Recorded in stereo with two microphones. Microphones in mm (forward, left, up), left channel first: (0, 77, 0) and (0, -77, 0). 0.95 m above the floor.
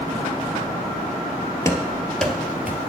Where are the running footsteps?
20° left (ahead or behind), 1.2 m; by 2.9 s 15° right (ahead or behind), 1.2 m.